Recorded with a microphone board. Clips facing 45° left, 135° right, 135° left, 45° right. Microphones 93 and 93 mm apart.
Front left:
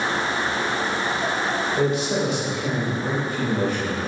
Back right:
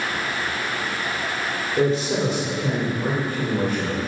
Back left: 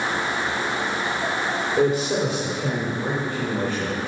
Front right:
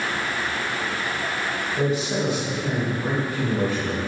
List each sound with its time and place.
1.8 s a man speaking: 170° left, 1.8 m; by 4.0 s 170° right, 4.5 m